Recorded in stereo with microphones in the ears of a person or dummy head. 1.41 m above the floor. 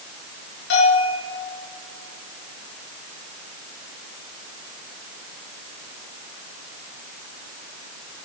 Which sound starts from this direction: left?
A bell, at 0.7 s.